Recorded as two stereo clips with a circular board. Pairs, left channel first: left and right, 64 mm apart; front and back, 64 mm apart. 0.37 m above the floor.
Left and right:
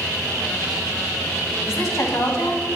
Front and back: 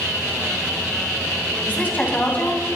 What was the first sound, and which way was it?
A woman speaking, 60° left.